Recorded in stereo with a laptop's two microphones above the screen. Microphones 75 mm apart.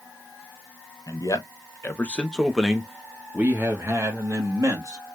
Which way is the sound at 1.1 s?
50° left (ahead or behind).